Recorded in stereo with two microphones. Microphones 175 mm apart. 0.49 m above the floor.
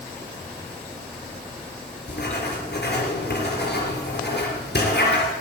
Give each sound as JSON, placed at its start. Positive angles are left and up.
{"t": 2.1, "sound": "writing", "side_deg": 75, "distance_m": 3.5}